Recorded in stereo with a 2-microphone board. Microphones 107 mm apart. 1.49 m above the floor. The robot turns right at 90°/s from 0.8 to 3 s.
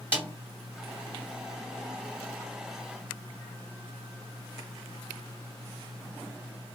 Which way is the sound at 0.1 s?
15° right (ahead or behind).